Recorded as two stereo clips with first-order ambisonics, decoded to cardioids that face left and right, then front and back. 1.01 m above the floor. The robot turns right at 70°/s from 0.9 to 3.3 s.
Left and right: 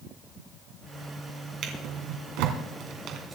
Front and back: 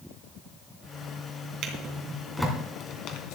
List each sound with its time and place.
1.6 s a drawer: 145° right, 2.5 m; by 3.4 s 25° right, 2.5 m